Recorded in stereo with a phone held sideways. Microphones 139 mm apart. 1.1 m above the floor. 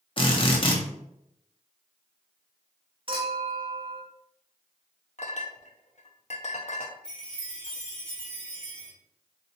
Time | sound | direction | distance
0.2 | a drill | 40° left (ahead or behind) | 0.8 m
3.1 | a clink | 40° right (ahead or behind) | 1.2 m
5.2 | a clink | 55° left (ahead or behind) | 0.6 m
7.0 | a chime | 5° left (ahead or behind) | 1.3 m